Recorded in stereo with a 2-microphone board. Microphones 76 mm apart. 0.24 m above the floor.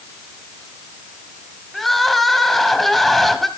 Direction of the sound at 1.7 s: Centre (ahead or behind).